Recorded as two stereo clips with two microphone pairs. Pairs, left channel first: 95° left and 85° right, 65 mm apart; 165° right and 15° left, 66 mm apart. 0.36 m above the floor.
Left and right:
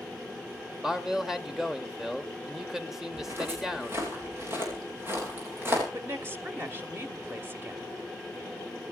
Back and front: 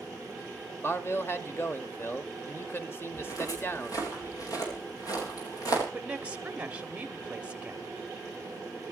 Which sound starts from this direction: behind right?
Footsteps, at 3.1 s.